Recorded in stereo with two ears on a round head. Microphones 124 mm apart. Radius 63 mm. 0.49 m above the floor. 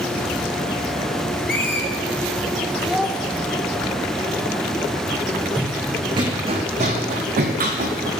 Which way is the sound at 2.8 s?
5° right (ahead or behind).